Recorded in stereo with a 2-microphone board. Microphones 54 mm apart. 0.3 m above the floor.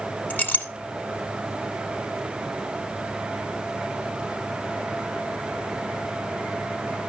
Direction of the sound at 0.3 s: 30° left (ahead or behind).